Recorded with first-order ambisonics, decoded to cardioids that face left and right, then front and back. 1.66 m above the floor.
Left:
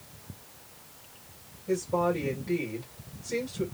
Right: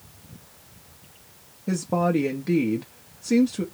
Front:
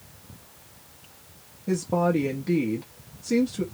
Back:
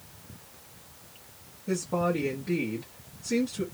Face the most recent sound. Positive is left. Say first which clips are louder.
# right 3 dB, front 4 dB
turn(degrees=-65)